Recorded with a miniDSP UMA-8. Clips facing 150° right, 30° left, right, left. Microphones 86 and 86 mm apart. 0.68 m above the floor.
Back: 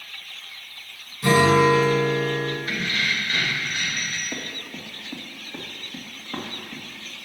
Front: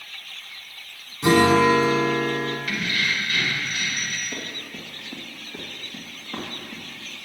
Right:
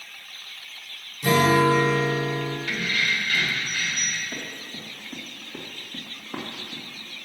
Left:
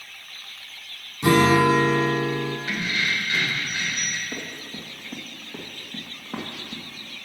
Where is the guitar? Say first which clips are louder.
Even, left 2 dB; 95° left, 1.5 m.